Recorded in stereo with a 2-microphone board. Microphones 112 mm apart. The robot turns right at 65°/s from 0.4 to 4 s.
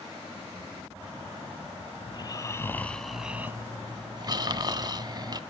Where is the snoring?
110° left, 0.6 m; by 5.4 s 120° right, 0.6 m.